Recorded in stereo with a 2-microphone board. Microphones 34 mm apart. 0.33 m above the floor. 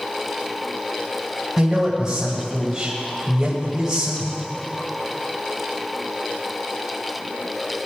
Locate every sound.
1.6 s a man speaking: 20° right (ahead or behind), 2 m